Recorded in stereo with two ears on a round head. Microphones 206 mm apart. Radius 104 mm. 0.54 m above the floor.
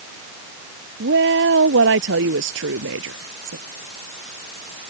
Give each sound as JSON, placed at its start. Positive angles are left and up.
{"t": 1.0, "sound": "a woman speaking", "side_deg": -50}